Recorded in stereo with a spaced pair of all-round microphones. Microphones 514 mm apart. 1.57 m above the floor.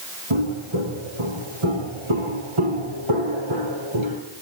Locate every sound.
0.3 s footsteps: 65° right (ahead or behind), 5 m; by 4.2 s 60° right (ahead or behind), 3 m